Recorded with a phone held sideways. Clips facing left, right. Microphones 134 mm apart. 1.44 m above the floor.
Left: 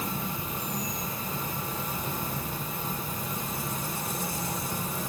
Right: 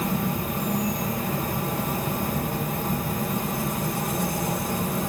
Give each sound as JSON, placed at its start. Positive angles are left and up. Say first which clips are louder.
{"t": 0.0, "sound": "an insect", "louder": "right 8 dB", "side_deg": -60, "distance_m": 0.9}